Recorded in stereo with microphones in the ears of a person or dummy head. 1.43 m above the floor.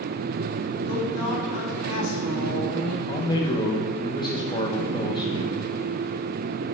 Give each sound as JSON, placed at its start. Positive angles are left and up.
{"t": 0.8, "sound": "a woman speaking", "side_deg": 75, "distance_m": 4.0}
{"t": 3.1, "sound": "a man speaking", "side_deg": 25, "distance_m": 1.3}